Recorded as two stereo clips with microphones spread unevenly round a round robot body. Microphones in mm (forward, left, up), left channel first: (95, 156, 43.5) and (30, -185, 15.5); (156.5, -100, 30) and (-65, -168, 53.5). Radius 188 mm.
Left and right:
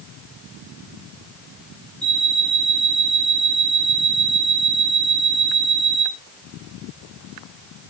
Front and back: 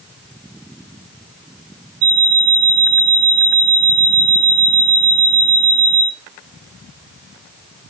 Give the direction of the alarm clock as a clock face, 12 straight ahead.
6 o'clock.